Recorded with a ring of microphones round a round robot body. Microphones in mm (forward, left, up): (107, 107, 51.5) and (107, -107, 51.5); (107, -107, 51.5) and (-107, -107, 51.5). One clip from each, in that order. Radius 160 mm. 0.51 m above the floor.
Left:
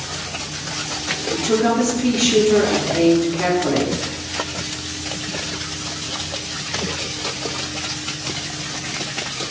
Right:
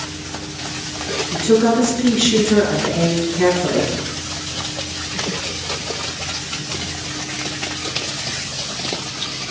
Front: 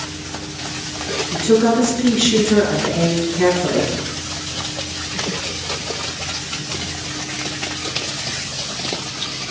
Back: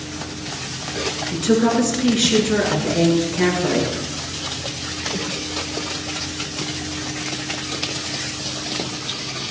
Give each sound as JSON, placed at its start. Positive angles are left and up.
{"t": 1.3, "sound": "a woman speaking", "azimuth_deg": -120, "distance_m": 7.5}